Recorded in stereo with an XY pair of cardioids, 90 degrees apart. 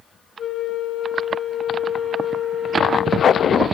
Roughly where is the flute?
Ahead left.